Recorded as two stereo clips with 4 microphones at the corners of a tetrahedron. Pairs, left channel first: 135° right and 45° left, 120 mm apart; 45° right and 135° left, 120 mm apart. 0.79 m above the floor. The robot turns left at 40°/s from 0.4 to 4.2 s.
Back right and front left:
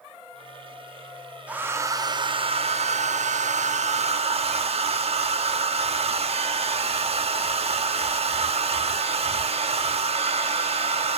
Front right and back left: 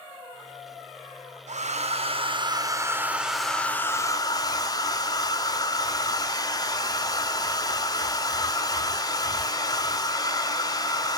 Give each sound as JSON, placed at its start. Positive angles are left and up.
{"t": 1.5, "sound": "a hair dryer", "azimuth_deg": 125, "distance_m": 0.6}